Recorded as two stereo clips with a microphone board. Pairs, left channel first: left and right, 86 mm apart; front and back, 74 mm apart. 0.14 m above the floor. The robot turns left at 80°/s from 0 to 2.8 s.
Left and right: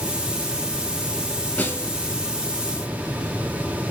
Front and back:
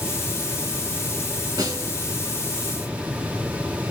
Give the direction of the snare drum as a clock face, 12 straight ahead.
7 o'clock.